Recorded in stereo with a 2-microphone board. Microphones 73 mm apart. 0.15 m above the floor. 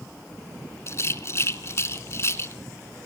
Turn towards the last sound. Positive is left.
turn(degrees=40)  # may be behind; listen again after turning